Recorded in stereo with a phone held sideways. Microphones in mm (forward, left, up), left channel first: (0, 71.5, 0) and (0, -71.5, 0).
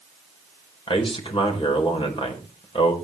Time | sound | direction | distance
0.9 | a man speaking | 40° left (ahead or behind) | 4.5 m